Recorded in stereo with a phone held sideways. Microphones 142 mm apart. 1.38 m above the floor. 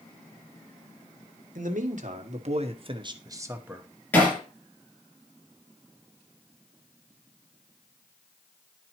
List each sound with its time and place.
1.6 s a man speaking: 70° right (ahead or behind), 1.4 m; by 3.9 s 5° right (ahead or behind), 1.0 m
4.1 s hammering: 15° left (ahead or behind), 5.5 m